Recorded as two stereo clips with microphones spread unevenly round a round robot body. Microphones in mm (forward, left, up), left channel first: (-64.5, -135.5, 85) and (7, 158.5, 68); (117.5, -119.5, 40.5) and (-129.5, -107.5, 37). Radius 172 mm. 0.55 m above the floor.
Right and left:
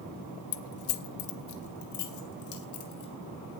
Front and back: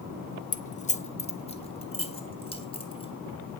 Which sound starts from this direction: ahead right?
Keys jangling, at 0.5 s.